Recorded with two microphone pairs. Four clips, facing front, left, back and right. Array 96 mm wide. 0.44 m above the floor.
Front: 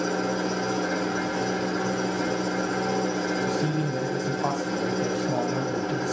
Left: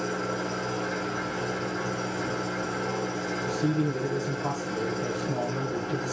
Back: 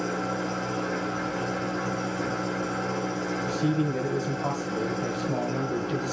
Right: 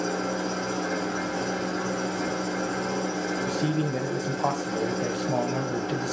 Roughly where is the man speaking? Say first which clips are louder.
Left 3 dB, even; right.